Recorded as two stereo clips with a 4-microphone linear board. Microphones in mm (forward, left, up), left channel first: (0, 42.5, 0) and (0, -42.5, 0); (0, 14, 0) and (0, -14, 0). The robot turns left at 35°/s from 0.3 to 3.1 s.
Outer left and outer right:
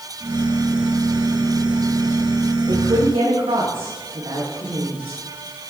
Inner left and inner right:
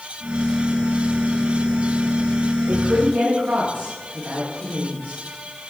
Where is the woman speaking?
80° right, 6.5 m; by 5.2 s 75° right (ahead or behind), 6.5 m.